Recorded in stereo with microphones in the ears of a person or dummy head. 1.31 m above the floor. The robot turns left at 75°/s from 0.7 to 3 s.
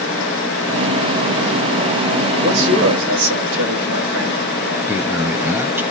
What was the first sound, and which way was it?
A man speaking, 50° right.